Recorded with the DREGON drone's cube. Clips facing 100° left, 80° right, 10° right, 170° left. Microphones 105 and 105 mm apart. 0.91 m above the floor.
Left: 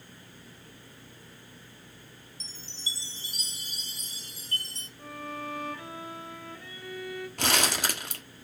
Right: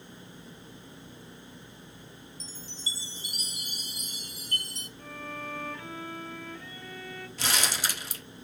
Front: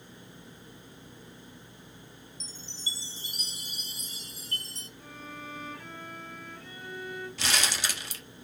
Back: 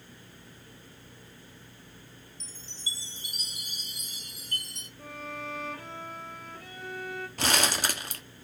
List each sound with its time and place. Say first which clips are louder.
2.4 s a chime: even, front 1 dB; 40° left, 1.0 m
5.0 s a violin: left 2 dB, back 5 dB; 170° left, 1.9 m
7.4 s crumpling: left 3 dB, back 5 dB; 130° left, 1.5 m